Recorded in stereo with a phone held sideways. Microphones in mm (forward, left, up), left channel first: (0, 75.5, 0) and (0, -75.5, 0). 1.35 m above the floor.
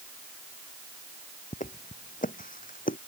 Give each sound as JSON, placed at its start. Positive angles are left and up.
{"t": 1.5, "sound": "footsteps", "side_deg": 55}